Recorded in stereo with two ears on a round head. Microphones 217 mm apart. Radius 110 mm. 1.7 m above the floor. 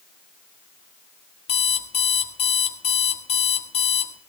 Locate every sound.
1.5 s an alarm clock: 25° left (ahead or behind), 1.4 m